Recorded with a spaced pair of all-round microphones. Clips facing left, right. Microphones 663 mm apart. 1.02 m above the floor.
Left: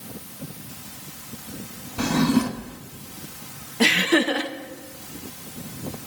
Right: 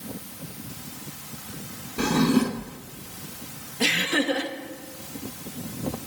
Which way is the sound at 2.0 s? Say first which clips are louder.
Even; 15° left (ahead or behind).